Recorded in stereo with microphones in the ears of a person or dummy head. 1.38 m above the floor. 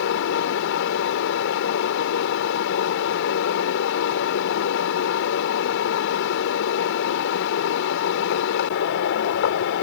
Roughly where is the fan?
Left.